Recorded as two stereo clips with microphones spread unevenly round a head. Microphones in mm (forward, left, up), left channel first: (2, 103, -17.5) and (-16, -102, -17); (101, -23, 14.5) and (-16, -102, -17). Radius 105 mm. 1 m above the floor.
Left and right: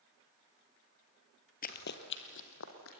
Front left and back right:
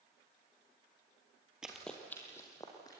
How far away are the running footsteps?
About 1.4 m.